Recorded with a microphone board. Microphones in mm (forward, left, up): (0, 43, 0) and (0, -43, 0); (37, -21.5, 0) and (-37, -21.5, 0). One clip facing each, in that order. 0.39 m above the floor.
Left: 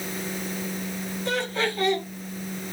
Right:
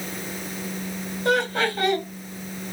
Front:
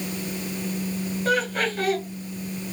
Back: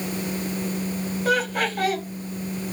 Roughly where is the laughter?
Right.